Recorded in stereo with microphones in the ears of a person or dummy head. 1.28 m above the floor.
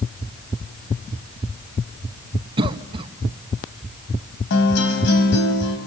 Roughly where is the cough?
Right.